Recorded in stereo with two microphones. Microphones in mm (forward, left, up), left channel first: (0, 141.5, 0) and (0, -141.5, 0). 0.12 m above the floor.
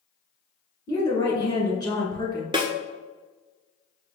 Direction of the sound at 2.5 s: 20° right (ahead or behind).